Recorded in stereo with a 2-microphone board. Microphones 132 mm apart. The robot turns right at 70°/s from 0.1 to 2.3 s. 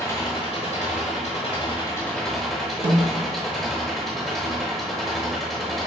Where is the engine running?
25° left, 1.0 m; by 5.9 s straight behind, 1.0 m.